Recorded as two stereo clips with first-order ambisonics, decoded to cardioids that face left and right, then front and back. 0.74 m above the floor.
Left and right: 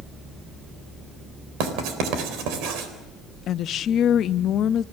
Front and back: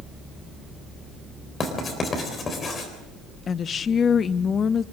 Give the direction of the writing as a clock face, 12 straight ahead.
2 o'clock.